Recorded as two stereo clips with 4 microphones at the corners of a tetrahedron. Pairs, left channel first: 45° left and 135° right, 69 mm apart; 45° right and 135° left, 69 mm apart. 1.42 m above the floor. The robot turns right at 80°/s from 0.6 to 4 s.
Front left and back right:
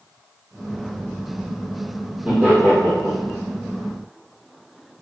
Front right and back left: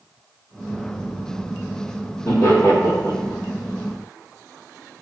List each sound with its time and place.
2.2 s laughter: 55° right, 1.5 m; by 3.4 s 35° left, 1.5 m